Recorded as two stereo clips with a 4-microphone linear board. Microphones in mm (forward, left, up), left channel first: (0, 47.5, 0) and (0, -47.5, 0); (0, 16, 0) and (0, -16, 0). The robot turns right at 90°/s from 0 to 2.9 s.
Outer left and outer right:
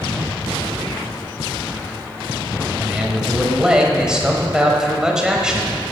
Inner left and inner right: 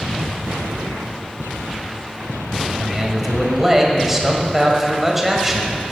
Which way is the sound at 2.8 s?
15° right (ahead or behind).